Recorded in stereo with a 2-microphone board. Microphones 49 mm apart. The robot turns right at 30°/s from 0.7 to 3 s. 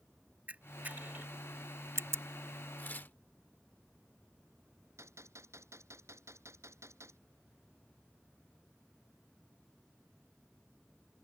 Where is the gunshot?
75° right (ahead or behind).